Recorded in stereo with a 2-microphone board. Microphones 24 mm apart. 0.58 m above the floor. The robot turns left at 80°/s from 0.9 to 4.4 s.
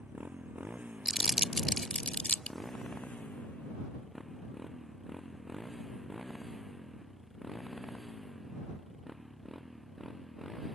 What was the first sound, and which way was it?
A motorcycle, 75° right (ahead or behind).